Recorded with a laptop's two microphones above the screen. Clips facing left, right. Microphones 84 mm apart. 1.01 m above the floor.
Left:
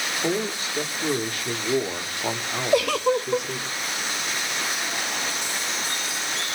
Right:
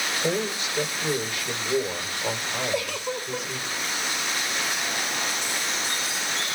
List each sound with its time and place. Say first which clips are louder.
0.2 s a man speaking: left 1 dB; 45° left (ahead or behind), 2.5 m; by 3.7 s 75° left (ahead or behind), 3 m
2.7 s a giggle: left 8 dB; 75° left (ahead or behind), 0.8 m